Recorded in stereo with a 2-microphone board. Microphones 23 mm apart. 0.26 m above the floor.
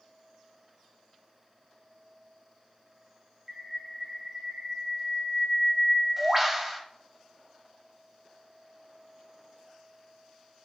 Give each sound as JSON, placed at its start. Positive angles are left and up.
{"t": 3.5, "sound": "a bird", "side_deg": -15, "distance_m": 1.2}